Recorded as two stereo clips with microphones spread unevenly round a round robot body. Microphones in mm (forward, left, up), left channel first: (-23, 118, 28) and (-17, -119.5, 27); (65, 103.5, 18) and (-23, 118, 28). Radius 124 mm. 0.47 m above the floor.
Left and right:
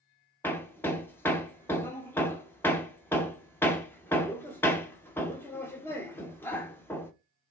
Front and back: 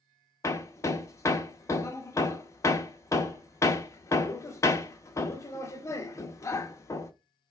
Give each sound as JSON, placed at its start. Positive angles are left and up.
{"t": 0.4, "sound": "hammering", "azimuth_deg": 15, "distance_m": 0.6}